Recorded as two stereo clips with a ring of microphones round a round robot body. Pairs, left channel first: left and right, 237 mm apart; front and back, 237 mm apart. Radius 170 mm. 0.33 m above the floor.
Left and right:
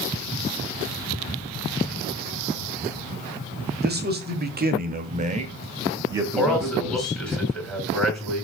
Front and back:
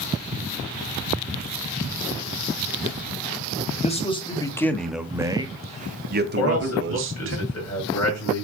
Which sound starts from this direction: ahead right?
A man speaking, at 3.8 s.